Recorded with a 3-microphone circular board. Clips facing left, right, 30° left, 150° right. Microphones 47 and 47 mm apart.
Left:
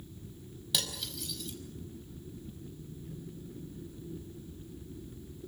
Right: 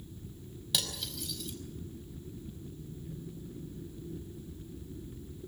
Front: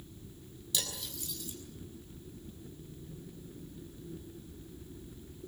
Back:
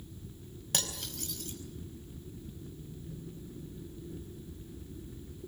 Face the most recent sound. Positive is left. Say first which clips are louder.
# even, back 2 dB
turn(degrees=180)